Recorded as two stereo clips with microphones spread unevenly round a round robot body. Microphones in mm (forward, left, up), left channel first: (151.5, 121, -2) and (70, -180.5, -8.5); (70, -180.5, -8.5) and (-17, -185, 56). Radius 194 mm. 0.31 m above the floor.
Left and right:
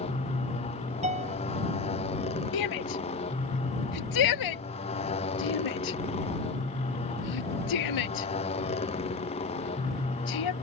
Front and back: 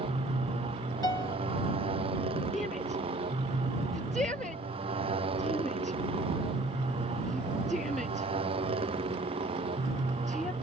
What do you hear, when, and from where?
0.0 s a motorcycle: 150° left
1.0 s a piano: 40° right
2.5 s a shout: 80° left